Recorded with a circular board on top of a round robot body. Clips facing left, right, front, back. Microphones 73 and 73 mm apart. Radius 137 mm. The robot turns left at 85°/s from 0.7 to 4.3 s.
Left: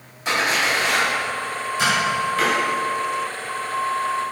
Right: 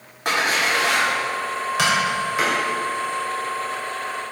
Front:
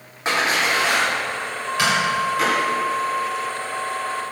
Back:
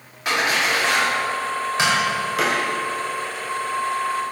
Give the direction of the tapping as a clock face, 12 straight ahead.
4 o'clock.